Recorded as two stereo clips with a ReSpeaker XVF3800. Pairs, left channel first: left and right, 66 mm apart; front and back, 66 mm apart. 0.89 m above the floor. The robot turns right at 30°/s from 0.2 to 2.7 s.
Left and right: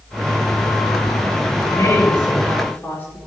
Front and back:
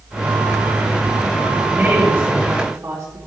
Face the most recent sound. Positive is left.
turn(degrees=145)